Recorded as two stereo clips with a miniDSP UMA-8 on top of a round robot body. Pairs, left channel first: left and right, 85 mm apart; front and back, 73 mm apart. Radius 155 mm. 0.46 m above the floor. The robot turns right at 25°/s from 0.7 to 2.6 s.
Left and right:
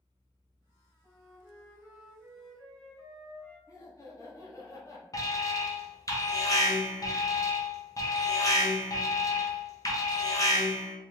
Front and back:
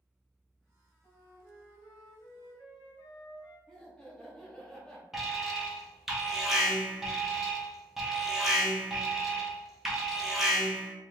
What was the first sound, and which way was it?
A flute, 40° right.